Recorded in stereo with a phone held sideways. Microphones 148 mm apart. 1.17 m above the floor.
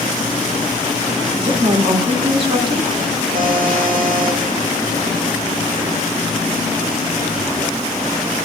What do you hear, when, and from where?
1.4 s a woman speaking: 35° right (ahead or behind), 1.8 m
3.3 s a buzzer: 75° right (ahead or behind), 1.5 m